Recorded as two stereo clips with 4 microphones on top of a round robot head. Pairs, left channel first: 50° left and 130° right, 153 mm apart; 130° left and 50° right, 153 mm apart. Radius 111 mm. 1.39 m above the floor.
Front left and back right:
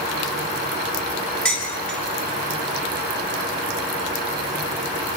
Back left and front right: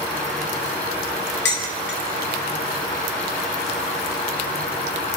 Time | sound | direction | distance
1.4 | dishes clattering | 135° left | 7.5 m